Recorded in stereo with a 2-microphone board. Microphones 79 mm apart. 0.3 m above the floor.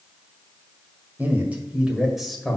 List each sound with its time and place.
1.2 s a man speaking: 25° right (ahead or behind), 1.6 m; by 2.6 s 5° left (ahead or behind), 1.5 m